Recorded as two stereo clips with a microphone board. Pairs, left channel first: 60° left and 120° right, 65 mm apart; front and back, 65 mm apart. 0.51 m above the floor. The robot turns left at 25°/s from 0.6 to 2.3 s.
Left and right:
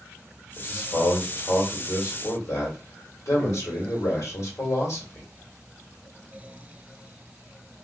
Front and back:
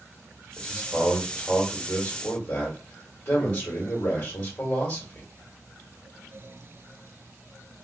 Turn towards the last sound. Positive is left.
turn(degrees=45)